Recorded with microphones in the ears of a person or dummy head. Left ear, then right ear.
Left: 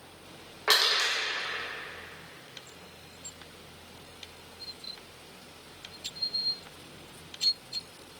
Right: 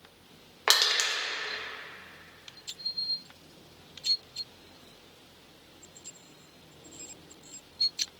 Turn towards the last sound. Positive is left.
turn(degrees=-70)  # may be behind; listen again after turning